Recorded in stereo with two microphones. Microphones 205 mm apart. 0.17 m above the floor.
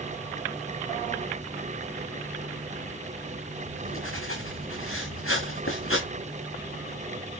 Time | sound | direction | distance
3.7 | writing | 80° left | 6.5 m